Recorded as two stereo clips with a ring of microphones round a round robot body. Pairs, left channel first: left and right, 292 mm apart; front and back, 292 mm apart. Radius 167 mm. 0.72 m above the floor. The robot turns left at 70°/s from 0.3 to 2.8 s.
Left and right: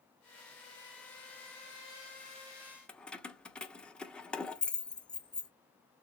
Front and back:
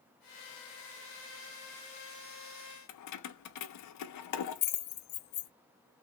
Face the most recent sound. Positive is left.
turn(degrees=5)